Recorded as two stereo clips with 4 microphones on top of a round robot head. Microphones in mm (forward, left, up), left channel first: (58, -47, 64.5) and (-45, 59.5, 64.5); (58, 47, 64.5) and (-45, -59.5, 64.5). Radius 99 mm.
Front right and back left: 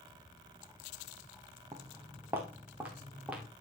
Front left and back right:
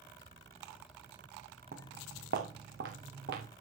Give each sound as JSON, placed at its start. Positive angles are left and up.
{"t": 1.7, "sound": "footsteps", "azimuth_deg": -155, "distance_m": 1.7}